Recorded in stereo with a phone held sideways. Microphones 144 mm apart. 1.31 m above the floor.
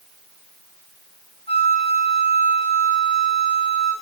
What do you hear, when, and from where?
1.5 s a flute: 40° left (ahead or behind), 6.5 m